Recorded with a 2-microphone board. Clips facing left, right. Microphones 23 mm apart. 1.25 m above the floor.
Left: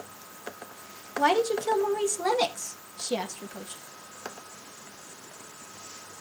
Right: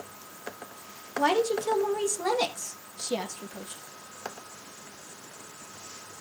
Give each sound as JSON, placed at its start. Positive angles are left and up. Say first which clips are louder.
{"t": 1.2, "sound": "a woman speaking", "louder": "left 1 dB", "side_deg": 10, "distance_m": 1.8}